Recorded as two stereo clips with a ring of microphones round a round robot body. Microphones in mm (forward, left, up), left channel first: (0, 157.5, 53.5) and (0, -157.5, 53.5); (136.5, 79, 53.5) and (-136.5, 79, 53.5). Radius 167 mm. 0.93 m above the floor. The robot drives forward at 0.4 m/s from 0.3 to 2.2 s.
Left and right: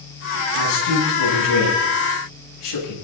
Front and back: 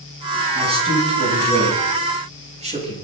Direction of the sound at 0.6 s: 110° left.